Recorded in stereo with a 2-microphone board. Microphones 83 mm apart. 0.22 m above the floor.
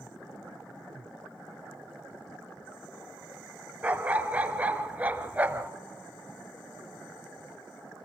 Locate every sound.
3.8 s a dog barking: 20° right (ahead or behind), 1.0 m